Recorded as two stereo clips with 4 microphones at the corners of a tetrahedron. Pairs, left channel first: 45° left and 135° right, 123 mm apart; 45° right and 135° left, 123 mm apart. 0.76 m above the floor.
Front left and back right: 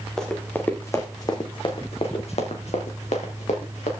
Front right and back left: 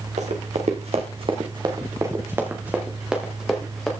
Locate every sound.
0.2 s running footsteps: 130° left, 2.5 m; by 3.9 s 45° left, 4 m